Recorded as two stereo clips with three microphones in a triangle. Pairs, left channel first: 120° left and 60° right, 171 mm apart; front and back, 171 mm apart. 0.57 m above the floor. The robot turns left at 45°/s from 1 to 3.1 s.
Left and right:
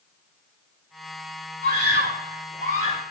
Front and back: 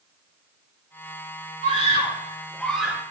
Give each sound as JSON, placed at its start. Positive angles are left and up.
{"t": 1.6, "sound": "a scream", "azimuth_deg": -40, "distance_m": 3.5}